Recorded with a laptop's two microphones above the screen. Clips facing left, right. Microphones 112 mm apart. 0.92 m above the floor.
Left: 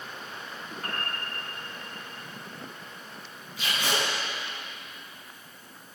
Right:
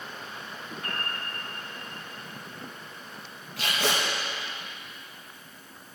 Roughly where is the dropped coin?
No dropped coin in this recording.